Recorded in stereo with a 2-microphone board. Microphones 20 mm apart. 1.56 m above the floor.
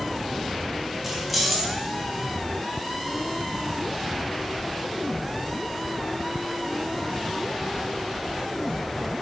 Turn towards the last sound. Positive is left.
turn(degrees=0)  # may be behind; listen again after turning